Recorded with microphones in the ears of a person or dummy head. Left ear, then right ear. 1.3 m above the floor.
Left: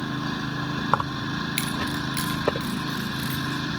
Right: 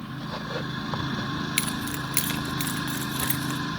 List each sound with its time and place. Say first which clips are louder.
0.9 s keys jangling: left 6 dB; 50° left (ahead or behind), 0.5 m; by 3.6 s 40° right (ahead or behind), 2.5 m